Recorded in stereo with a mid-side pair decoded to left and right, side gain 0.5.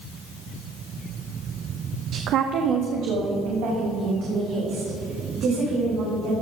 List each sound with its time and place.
2.1 s a woman speaking: 60° right, 0.7 m; by 6.3 s 80° right, 6 m